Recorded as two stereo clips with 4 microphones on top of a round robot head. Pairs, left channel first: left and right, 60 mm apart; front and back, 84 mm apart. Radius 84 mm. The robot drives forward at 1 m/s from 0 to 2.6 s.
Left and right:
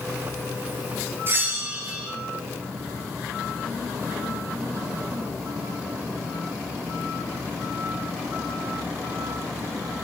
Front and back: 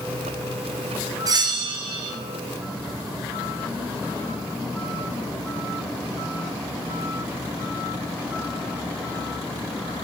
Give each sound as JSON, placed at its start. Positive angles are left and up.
{"t": 1.3, "sound": "a bell", "azimuth_deg": -140, "distance_m": 0.6}